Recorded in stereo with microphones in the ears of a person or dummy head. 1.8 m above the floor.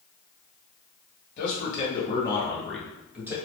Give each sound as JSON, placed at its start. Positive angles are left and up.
{"t": 1.4, "sound": "a man speaking", "side_deg": 50, "distance_m": 1.0}